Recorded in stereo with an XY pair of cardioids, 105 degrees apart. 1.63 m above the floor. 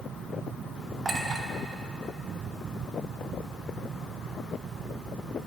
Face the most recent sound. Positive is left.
turn(degrees=-35)